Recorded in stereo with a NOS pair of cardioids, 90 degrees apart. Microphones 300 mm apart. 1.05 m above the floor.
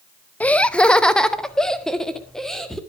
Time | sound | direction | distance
0.4 | laughter | 5° left | 0.6 m